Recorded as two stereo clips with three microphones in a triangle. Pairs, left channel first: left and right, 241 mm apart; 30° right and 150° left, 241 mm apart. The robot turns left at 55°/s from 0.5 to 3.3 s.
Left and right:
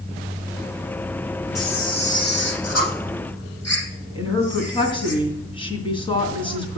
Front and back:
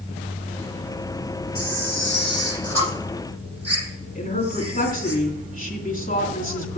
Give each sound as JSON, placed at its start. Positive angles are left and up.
{"t": 1.6, "sound": "a camera shutter", "azimuth_deg": 180, "distance_m": 6.5}
{"t": 4.2, "sound": "a woman speaking", "azimuth_deg": 20, "distance_m": 3.0}